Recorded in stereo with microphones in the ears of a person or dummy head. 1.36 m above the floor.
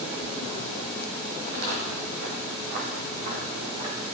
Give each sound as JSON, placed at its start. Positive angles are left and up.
{"t": 1.4, "sound": "footsteps", "side_deg": -60, "distance_m": 3.0}